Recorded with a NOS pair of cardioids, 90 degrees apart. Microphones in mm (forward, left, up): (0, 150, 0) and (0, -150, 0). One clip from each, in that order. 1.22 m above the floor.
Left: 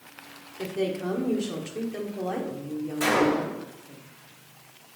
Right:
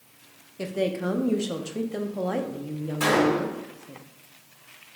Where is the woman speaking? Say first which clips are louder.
Right 2 dB; 20° right, 0.7 m.